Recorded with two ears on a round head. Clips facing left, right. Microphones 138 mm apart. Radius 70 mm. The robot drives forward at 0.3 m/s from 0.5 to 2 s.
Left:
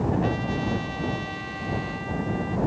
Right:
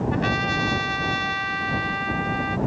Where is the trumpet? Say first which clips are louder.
Right 1 dB; 85° right; by 2.6 s 80° right.